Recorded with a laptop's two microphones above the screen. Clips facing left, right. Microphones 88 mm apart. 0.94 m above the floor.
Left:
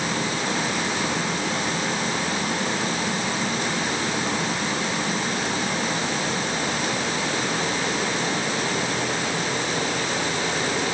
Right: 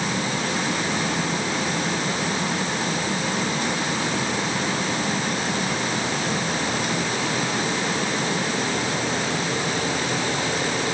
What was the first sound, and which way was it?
Only background noise.